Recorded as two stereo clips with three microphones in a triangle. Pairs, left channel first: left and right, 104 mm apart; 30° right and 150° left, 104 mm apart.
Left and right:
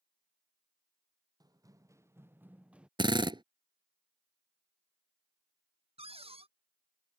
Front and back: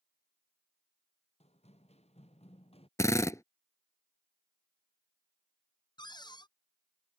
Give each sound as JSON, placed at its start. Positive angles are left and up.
{"t": 1.4, "sound": "running footsteps", "azimuth_deg": -40}
{"t": 3.0, "sound": "a drill", "azimuth_deg": -80}
{"t": 6.0, "sound": "a cupboard door", "azimuth_deg": -75}